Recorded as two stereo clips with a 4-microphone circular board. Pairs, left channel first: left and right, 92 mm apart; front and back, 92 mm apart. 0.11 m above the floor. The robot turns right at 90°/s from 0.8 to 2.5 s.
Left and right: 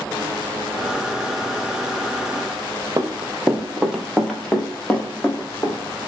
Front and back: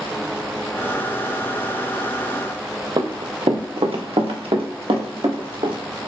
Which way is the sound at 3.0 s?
145° right.